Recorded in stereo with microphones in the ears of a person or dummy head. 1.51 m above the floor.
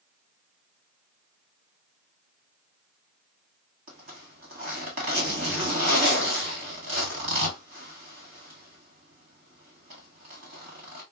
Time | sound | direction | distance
3.9 | a zipper | 40° right (ahead or behind) | 1.7 m